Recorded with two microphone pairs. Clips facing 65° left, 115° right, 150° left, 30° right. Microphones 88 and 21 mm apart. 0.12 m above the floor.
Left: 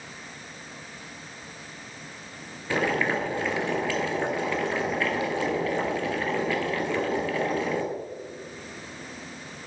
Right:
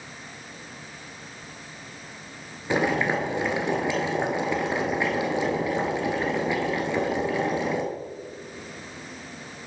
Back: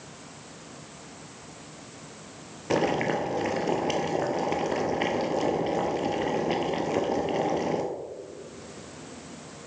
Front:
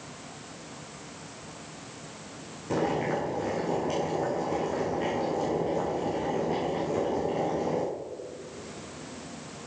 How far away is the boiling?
About 2 m.